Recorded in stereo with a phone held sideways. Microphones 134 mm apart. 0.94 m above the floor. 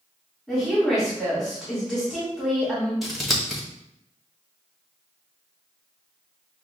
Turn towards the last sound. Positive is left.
turn(degrees=0)  # may be behind; listen again after turning